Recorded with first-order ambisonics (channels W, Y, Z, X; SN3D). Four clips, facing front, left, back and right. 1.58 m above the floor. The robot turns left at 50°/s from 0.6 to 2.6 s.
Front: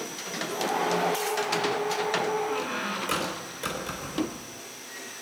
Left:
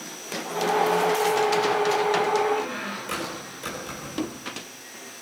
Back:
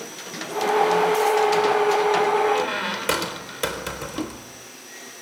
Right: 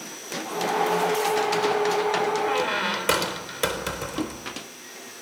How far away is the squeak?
About 3.5 m.